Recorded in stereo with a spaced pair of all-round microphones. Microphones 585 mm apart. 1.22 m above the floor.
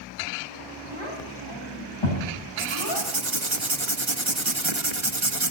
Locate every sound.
0.9 s a child speaking: 50° left (ahead or behind), 5.5 m; by 3.1 s 45° left (ahead or behind), 4.5 m
2.6 s writing: 50° right (ahead or behind), 1.6 m